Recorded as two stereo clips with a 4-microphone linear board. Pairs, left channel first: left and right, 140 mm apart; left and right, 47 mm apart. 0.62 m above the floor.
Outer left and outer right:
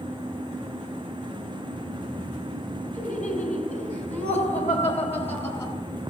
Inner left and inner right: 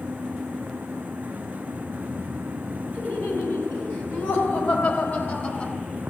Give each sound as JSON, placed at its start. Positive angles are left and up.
{"t": 2.9, "sound": "laughter", "side_deg": 80, "distance_m": 4.0}